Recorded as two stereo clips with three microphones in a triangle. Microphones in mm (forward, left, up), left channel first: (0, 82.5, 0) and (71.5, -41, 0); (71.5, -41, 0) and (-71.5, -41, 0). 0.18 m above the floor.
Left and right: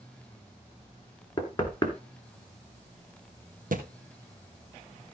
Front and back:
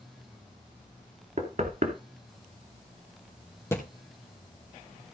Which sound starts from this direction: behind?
Knocking, at 1.4 s.